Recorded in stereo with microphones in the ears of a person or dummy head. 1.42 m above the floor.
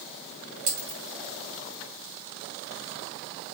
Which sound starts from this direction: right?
A dropped coin, at 0.7 s.